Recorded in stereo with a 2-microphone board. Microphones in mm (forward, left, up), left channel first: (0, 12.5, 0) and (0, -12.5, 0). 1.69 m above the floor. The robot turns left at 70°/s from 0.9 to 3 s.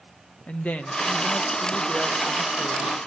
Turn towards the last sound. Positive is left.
turn(degrees=-50)